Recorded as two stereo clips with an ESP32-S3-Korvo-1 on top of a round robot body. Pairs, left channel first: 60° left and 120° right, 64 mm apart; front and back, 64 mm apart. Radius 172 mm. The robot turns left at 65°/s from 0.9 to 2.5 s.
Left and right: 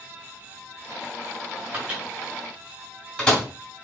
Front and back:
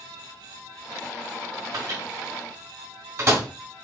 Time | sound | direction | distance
1.7 | a microwave | 175° right | 2.5 m